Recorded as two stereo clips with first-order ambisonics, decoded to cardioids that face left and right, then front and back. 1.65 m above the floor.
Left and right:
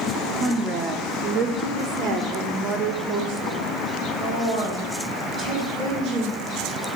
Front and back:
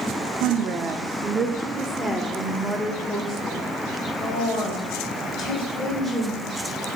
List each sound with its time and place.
0.4 s a woman speaking: 160° right, 0.7 m; by 6.4 s 65° right, 3.5 m